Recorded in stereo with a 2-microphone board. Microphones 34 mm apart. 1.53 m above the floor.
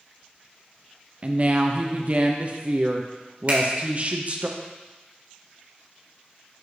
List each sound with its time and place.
1.2 s a woman speaking: 40° right (ahead or behind), 0.6 m
3.5 s a finger snap: 40° right (ahead or behind), 1.7 m